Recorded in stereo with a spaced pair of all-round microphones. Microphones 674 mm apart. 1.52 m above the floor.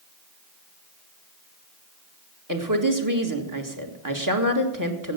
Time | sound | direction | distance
2.5 | a woman speaking | 30° right (ahead or behind) | 1.9 m